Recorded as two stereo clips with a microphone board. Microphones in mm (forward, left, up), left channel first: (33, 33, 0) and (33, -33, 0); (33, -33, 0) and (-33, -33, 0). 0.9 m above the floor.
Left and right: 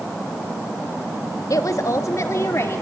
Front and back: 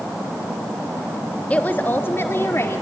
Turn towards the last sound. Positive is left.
turn(degrees=45)